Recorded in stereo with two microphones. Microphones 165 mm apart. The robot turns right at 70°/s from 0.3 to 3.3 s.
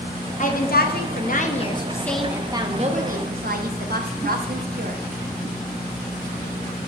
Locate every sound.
0.4 s a woman speaking: 55° left, 0.8 m; by 5.0 s 100° right, 0.8 m